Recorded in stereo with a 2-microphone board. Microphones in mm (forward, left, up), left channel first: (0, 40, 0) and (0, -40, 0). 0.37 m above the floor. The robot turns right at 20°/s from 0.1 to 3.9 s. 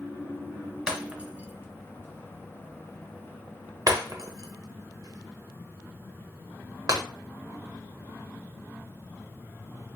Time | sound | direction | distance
0.9 | breaking glass | 10° right (ahead or behind) | 0.6 m